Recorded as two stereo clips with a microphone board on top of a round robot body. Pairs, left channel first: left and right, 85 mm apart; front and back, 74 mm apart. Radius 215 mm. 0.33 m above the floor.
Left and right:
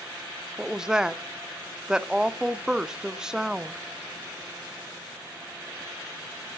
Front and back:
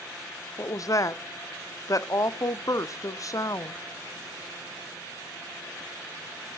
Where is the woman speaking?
10° right, 1.1 m.